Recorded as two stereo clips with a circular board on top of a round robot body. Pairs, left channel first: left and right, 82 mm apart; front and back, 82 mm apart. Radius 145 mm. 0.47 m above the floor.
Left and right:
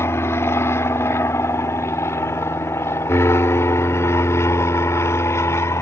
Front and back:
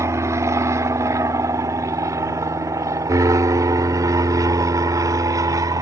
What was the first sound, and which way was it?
An aircraft, 140° left.